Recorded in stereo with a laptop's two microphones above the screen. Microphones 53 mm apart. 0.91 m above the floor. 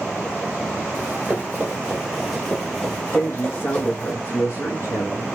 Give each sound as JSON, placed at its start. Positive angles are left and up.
{"t": 0.9, "sound": "running footsteps", "side_deg": -35, "distance_m": 1.6}
{"t": 3.1, "sound": "a man speaking", "side_deg": 55, "distance_m": 1.3}